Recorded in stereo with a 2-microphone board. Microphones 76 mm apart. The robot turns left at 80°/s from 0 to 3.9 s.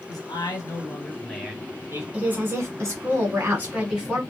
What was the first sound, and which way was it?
A man speaking, 100° left.